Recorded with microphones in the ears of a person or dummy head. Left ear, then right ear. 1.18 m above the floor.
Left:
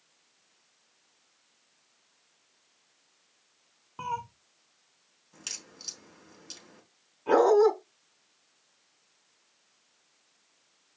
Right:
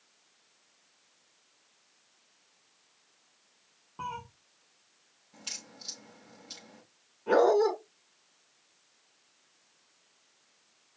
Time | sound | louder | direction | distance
4.0 | a cat meowing | left 5 dB | 80° left | 2 m
5.3 | a crack | left 1 dB | 75° left (ahead or behind) | 6 m
7.3 | a dog barking | left 3 dB | 85° left | 5 m